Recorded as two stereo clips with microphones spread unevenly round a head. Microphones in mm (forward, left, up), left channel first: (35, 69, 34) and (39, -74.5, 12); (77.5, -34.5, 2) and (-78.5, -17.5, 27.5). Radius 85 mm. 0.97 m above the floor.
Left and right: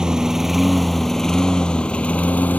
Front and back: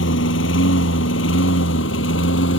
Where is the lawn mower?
Straight ahead; by 2.6 s 15° left.